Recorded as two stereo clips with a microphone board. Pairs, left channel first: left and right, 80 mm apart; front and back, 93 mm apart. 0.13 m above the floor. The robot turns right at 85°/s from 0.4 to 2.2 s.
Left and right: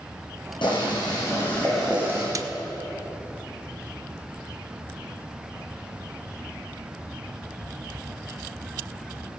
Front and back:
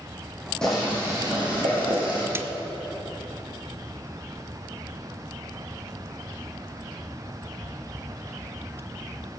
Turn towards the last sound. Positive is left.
turn(degrees=-120)